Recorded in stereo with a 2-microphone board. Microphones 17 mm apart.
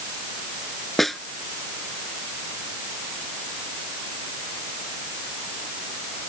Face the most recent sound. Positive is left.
turn(degrees=5)  # may be behind; listen again after turning